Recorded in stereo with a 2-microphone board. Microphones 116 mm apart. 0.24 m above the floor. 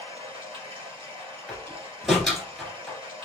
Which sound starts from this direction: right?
Running water, at 0.0 s.